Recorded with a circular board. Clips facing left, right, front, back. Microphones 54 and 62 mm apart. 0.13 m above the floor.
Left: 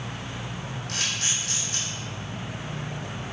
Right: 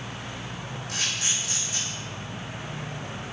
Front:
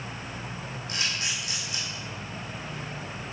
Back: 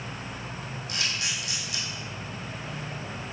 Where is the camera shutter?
65° left, 2 m.